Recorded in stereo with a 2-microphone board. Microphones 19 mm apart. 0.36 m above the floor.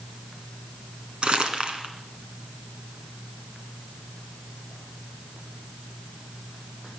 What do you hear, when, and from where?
1.2 s crumpling: 60° right (ahead or behind), 2 m